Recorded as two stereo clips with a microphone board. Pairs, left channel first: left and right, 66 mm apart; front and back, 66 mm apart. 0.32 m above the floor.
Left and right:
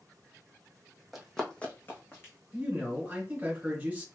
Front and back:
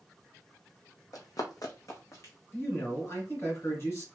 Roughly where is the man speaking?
Ahead right.